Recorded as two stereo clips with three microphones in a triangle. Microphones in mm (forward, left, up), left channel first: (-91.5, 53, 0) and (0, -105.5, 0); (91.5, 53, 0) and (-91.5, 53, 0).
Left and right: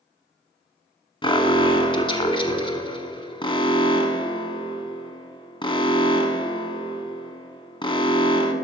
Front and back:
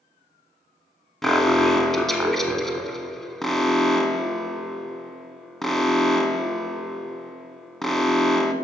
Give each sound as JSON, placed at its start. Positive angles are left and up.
{"t": 1.2, "sound": "an alarm", "azimuth_deg": 85, "distance_m": 0.8}